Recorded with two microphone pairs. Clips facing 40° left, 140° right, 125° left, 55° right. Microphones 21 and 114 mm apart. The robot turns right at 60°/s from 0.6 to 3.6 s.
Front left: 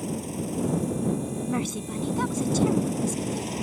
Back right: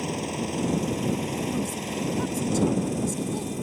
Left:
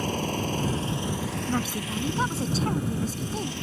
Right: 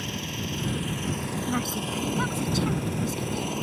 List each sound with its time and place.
0.0 s an engine running: 170° left; by 3.6 s 10° right
1.5 s a woman speaking: 35° left; by 3.5 s 155° left